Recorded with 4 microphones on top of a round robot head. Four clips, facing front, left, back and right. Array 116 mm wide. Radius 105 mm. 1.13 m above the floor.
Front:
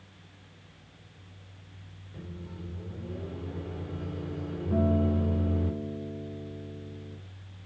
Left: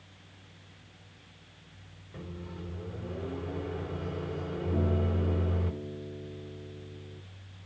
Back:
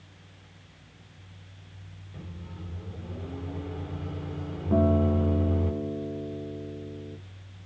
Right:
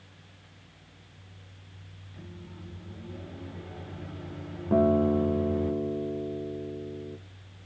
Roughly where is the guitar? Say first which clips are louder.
Right 11 dB, back 4 dB; behind right.